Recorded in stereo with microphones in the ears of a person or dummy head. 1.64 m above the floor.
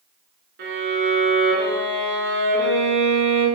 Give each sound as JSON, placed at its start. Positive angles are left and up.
{"t": 0.6, "sound": "a violin", "side_deg": -55, "distance_m": 5.0}